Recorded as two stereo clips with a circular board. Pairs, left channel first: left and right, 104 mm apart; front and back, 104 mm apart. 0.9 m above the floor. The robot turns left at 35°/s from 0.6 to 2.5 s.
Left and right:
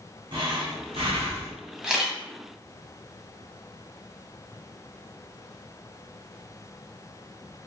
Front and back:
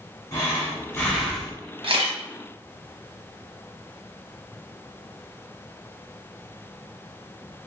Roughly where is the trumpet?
No trumpet in this recording.